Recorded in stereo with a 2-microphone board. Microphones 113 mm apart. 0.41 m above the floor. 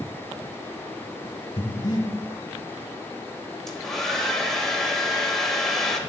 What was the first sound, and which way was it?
Breathing, 40° left (ahead or behind).